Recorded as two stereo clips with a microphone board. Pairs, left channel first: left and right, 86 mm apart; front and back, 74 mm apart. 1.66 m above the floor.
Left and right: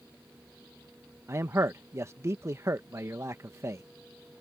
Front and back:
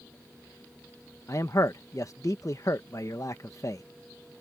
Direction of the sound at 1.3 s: 35° right.